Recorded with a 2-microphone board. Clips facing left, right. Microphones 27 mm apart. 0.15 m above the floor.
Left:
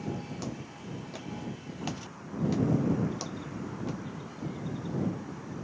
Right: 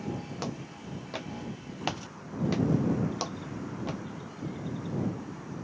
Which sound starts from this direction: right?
Footsteps, at 0.4 s.